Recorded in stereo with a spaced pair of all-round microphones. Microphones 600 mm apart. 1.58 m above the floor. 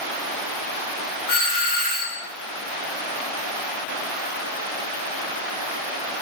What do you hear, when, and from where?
1.3 s a doorbell: 65° left (ahead or behind), 1.5 m